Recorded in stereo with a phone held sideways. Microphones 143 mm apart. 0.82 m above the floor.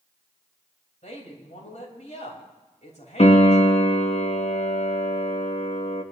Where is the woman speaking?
55° left (ahead or behind), 4 m.